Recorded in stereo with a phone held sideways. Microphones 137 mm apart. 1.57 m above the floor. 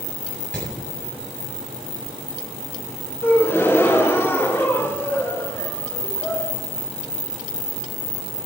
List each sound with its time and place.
0.5 s hammering: 10° left (ahead or behind), 7.5 m
3.2 s a gasp: 15° left (ahead or behind), 1.4 m